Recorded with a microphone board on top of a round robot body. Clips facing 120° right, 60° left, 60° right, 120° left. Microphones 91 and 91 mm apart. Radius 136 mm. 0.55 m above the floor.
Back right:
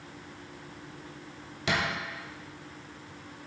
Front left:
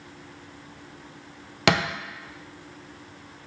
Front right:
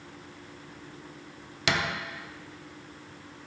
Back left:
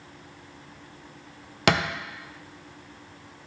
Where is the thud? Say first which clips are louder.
Front left 7 dB, back left 6 dB; 80° left, 0.5 m.